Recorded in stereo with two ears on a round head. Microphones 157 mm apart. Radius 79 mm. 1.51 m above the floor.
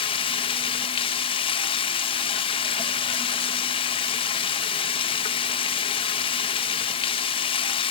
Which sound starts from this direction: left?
Running water, at 0.0 s.